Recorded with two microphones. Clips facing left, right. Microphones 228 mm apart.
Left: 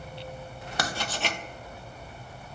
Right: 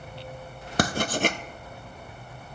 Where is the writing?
50° right (ahead or behind), 0.6 m.